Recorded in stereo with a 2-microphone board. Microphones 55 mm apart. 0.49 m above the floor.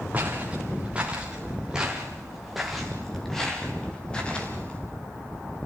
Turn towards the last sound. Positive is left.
turn(degrees=20)  # may be behind; listen again after turning